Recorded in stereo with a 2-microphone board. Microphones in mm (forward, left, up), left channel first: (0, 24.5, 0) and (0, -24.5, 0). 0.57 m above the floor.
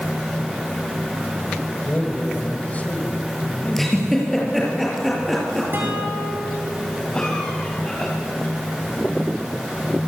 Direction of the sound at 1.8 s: 30° left (ahead or behind).